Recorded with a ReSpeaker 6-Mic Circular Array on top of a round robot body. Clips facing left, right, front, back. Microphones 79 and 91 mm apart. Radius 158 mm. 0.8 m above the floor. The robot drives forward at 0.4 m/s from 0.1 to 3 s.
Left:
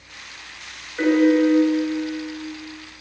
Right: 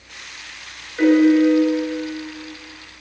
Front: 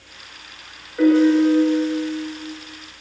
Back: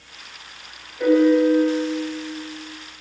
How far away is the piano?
About 8.5 m.